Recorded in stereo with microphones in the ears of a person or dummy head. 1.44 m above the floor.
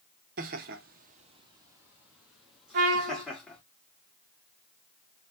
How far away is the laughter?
About 0.6 m.